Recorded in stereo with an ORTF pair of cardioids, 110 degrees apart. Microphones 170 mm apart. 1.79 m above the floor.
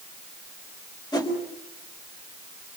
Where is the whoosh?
25° left, 4.5 m.